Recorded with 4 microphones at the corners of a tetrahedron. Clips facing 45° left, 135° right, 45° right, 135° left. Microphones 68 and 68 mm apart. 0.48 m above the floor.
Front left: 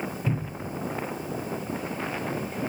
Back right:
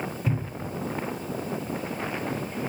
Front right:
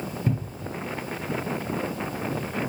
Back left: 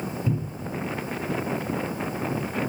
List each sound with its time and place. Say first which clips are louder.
0.3 s a cupboard door: even, even; 65° right, 1.8 m